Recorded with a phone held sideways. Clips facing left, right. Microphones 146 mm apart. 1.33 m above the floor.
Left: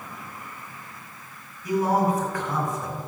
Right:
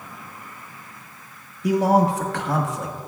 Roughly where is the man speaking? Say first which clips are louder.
Right 4 dB; right.